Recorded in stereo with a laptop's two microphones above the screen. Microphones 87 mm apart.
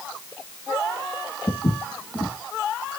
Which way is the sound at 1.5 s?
45° left (ahead or behind).